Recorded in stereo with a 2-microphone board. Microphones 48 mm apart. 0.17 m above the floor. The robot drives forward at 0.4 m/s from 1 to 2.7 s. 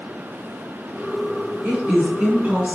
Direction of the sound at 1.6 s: 30° right (ahead or behind).